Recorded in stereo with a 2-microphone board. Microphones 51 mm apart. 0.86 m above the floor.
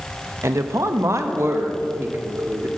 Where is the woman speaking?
55° right (ahead or behind), 0.5 m; by 2.7 s 45° right (ahead or behind), 1.6 m.